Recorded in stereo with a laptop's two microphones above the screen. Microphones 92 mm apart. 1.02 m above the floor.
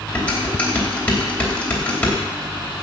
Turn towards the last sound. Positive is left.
turn(degrees=20)  # may be behind; listen again after turning